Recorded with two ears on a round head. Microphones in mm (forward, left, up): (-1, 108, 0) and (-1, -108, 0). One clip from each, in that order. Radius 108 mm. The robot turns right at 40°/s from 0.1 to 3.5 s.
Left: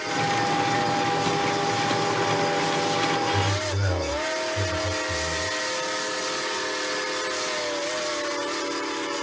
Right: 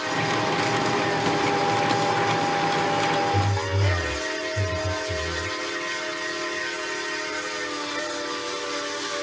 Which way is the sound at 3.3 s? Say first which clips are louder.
Even; 55° left (ahead or behind).